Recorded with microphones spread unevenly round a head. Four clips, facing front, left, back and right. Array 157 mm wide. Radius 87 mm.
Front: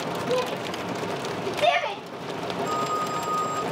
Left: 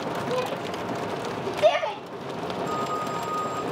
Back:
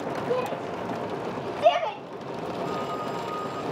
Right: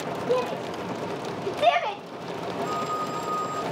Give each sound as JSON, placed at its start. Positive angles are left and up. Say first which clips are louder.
{"t": 0.3, "sound": "a shout", "louder": "right 5 dB, front 2 dB", "azimuth_deg": -80, "distance_m": 2.0}
{"t": 2.6, "sound": "a phone ringing", "louder": "left 1 dB, front 5 dB", "azimuth_deg": -70, "distance_m": 7.5}